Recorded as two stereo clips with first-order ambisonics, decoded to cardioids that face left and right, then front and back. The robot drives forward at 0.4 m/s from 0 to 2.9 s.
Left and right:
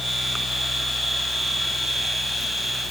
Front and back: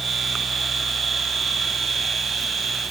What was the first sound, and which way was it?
Only background noise.